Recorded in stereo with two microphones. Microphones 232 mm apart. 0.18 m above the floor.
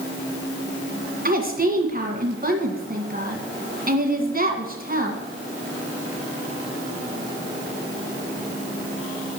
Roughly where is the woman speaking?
Right.